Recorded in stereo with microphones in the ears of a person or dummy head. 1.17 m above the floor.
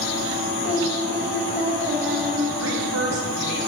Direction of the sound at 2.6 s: 85° right.